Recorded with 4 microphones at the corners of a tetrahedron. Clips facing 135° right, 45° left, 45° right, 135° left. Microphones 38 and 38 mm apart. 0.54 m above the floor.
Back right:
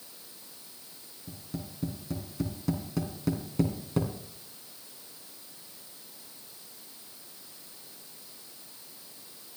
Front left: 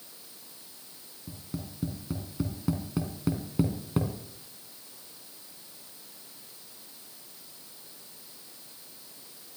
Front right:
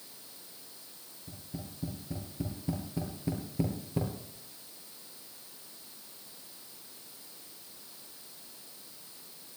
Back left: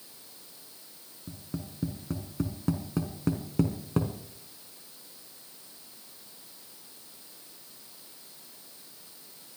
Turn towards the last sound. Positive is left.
turn(degrees=120)